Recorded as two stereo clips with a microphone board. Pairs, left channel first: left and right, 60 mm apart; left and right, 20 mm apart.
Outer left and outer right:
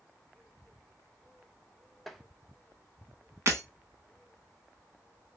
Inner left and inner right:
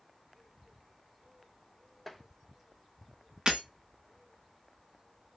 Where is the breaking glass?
45° right (ahead or behind), 0.9 m.